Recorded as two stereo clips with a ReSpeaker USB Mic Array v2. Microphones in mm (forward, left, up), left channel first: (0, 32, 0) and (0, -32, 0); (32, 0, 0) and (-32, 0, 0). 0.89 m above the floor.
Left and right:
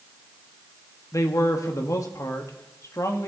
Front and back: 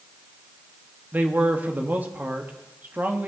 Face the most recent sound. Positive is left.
turn(degrees=120)